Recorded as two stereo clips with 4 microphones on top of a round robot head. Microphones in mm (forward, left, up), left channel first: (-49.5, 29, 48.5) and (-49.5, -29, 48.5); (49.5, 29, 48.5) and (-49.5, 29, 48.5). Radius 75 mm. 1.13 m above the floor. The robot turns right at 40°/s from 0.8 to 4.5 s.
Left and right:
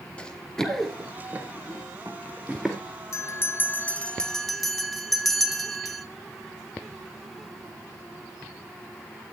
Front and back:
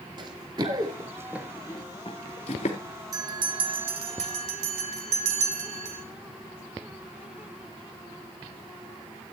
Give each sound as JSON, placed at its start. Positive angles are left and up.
{"t": 0.2, "sound": "running footsteps", "azimuth_deg": 155, "distance_m": 1.3}
{"t": 3.1, "sound": "a bell", "azimuth_deg": 125, "distance_m": 1.6}